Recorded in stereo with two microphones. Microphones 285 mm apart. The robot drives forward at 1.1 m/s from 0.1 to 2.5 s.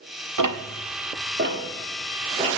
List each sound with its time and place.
0.4 s ticking: 80° right, 0.8 m; by 2.5 s 20° right (ahead or behind), 2.5 m